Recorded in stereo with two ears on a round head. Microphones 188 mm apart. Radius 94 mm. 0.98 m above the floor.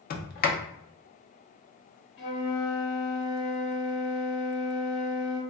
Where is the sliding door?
40° left (ahead or behind), 0.6 m.